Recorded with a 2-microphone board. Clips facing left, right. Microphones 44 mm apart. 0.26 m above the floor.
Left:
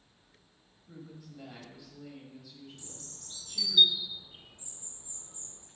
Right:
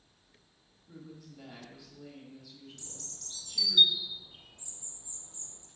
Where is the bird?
20° left (ahead or behind), 0.5 m.